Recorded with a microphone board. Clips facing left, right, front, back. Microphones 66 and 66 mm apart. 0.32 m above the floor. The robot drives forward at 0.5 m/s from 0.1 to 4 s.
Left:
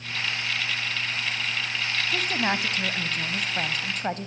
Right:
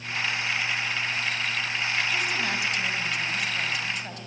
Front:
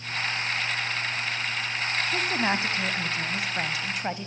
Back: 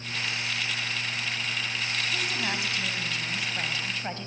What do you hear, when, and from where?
2.1 s a woman speaking: 45° left, 2.5 m; by 4.3 s 65° left, 2 m